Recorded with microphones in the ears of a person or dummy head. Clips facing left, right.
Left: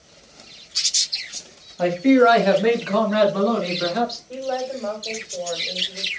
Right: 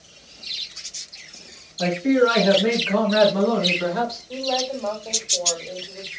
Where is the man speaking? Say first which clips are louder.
Left 3 dB; 80° left, 1.0 m; by 4.2 s 35° left (ahead or behind), 2 m.